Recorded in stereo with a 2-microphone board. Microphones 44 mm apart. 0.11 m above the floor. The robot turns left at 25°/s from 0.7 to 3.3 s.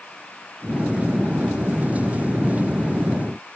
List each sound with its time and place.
Only background noise.